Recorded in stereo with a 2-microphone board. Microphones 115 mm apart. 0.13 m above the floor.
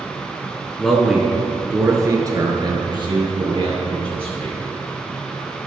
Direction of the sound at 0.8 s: 5° left (ahead or behind).